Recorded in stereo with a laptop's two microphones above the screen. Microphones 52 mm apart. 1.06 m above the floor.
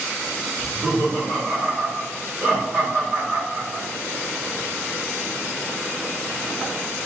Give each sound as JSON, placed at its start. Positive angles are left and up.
{"t": 0.6, "sound": "laughter", "side_deg": -35, "distance_m": 2.0}